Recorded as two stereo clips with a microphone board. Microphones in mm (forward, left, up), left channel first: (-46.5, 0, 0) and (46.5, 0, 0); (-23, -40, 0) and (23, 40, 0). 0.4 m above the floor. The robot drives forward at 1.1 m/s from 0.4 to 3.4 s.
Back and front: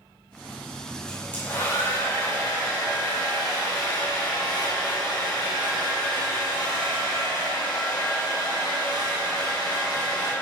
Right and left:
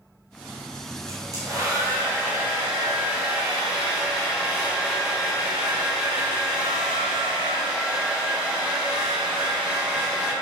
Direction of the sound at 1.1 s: 105° left.